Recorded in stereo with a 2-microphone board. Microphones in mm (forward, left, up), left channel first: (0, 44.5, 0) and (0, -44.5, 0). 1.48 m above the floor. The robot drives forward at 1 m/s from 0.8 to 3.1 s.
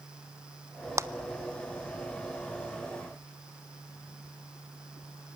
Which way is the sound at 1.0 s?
35° right (ahead or behind).